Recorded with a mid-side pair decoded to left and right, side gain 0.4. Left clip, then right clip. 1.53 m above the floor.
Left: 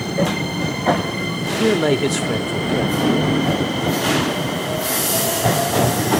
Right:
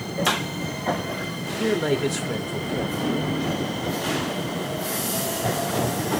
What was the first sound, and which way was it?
A man speaking, 50° left.